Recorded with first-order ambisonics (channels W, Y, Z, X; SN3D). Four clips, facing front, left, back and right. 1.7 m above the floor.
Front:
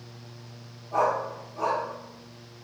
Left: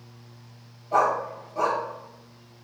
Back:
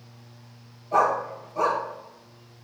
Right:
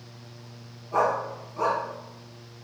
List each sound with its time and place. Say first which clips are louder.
0.9 s a dog barking: left 2 dB, back 3 dB; 125° left, 3.5 m